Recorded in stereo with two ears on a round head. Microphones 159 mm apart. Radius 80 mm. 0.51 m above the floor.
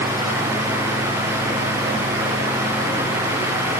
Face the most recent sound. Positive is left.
No sound to turn to.